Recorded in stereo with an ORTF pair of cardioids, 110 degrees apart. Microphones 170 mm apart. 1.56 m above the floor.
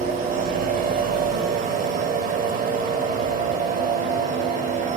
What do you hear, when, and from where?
0.0 s a machine running: 60° right, 2 m